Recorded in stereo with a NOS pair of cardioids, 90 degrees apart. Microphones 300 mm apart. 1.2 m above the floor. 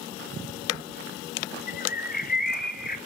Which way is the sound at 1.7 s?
35° left.